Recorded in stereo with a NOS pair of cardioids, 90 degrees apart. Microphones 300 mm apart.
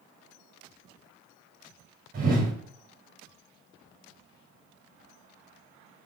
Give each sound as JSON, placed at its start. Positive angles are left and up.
{"t": 2.1, "sound": "a whoosh", "azimuth_deg": -30, "distance_m": 1.0}